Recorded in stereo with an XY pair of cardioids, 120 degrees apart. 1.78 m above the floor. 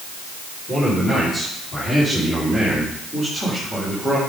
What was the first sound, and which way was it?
A man speaking, 25° left.